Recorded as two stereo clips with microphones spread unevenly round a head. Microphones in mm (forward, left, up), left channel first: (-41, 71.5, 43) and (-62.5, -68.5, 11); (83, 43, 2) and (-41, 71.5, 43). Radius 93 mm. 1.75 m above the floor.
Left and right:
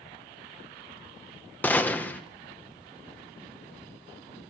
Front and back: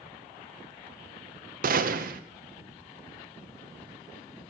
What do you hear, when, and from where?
1.6 s a gunshot: 160° left, 1.1 m